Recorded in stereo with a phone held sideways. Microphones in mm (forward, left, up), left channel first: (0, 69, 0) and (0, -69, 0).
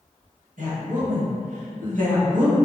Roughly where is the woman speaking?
Right.